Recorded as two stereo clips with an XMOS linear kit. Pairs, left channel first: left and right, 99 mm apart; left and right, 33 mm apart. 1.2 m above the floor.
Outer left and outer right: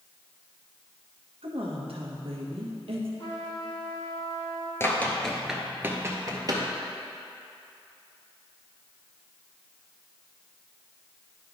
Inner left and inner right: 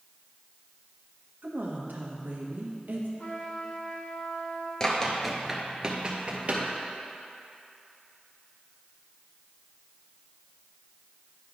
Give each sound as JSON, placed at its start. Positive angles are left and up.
{"t": 1.4, "sound": "a woman speaking", "side_deg": -70, "distance_m": 1.4}
{"t": 3.2, "sound": "a trumpet", "side_deg": 70, "distance_m": 1.7}
{"t": 4.8, "sound": "running footsteps", "side_deg": 25, "distance_m": 1.2}